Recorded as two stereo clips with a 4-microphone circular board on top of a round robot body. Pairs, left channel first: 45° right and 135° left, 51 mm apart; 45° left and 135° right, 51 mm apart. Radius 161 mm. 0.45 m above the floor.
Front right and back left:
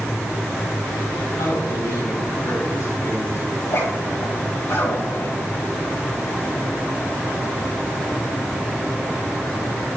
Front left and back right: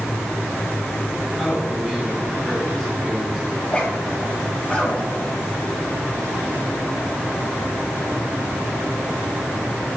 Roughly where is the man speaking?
Ahead right.